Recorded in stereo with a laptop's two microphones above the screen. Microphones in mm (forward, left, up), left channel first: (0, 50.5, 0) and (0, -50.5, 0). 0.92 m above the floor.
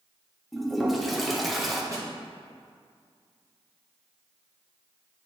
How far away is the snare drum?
About 1.5 m.